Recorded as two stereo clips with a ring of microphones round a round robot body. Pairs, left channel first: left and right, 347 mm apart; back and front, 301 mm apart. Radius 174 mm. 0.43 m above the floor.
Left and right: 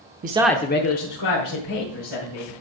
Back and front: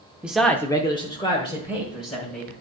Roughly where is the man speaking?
Right.